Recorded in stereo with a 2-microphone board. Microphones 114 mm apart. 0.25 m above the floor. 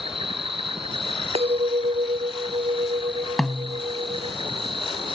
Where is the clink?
60° right (ahead or behind).